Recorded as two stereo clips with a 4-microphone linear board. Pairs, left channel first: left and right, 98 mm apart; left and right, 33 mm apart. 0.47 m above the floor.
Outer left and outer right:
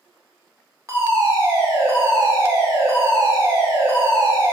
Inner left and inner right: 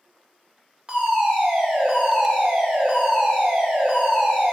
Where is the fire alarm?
30° right (ahead or behind), 2 m.